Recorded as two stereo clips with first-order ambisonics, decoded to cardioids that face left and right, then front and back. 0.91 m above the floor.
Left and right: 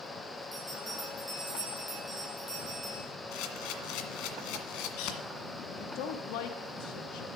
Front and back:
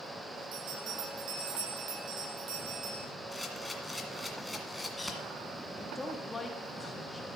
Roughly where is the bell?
Behind.